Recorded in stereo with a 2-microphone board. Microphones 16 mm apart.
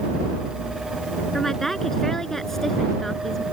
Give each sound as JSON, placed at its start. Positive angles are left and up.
{"t": 1.3, "sound": "a woman speaking", "side_deg": 30}